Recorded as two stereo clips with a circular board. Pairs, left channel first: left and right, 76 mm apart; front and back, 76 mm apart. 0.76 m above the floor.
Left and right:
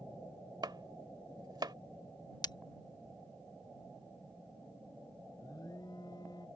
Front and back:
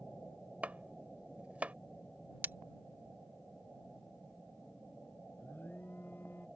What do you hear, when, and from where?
0.6 s chopping: 110° right
2.4 s breaking glass: 115° left
5.4 s an alarm: 60° left